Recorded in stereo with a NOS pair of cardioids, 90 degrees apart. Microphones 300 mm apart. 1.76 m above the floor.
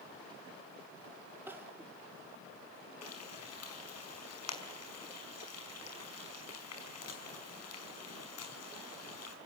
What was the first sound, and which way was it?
Crying, 5° right.